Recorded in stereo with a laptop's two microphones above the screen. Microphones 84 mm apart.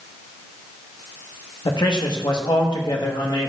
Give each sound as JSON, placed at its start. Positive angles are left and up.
{"t": 1.6, "sound": "a man speaking", "side_deg": 65, "distance_m": 1.1}